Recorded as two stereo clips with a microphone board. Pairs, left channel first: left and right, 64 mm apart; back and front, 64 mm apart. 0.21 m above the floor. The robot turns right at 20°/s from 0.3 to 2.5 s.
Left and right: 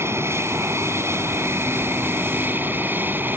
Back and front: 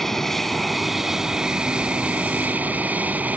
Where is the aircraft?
95° right; by 3.4 s 55° right.